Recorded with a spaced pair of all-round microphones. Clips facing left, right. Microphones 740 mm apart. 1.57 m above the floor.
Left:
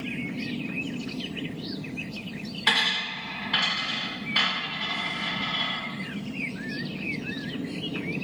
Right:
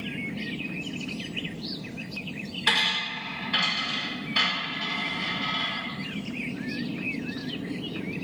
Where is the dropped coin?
25° left (ahead or behind), 1.5 m.